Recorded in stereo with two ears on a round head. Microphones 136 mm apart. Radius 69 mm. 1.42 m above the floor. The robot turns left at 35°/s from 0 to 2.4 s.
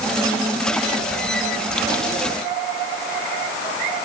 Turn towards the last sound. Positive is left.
No sound to turn to.